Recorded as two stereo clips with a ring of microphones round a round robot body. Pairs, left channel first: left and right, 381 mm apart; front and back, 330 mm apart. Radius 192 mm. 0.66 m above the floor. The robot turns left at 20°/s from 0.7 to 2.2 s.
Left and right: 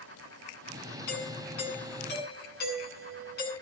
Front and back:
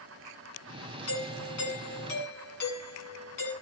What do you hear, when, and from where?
1.1 s a doorbell: 45° left, 8.5 m; by 3.5 s 25° left, 8.5 m